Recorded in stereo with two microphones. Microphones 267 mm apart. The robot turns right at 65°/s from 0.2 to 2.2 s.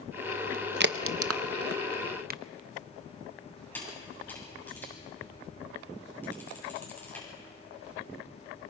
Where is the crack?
40° right (ahead or behind), 0.6 m; by 2.4 s 35° right (ahead or behind), 0.6 m.